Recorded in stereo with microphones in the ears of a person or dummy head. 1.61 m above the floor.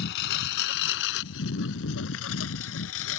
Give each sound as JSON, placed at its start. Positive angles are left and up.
{"t": 0.0, "sound": "a lawn mower", "side_deg": 65}